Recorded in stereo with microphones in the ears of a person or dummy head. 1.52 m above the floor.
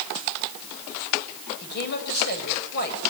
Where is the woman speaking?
55° left (ahead or behind), 7.5 m.